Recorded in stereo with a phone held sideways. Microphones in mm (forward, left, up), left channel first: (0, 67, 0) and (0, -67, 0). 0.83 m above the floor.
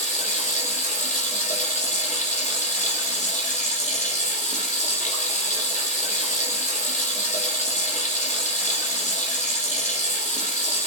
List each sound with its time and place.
0.0 s running water: 70° left (ahead or behind), 7 m